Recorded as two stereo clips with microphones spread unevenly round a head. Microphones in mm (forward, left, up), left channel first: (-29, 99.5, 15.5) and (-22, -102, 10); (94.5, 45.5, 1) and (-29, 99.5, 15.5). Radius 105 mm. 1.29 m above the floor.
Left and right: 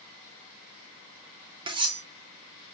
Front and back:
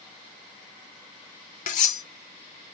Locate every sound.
1.7 s cutlery clinking: 25° right, 0.5 m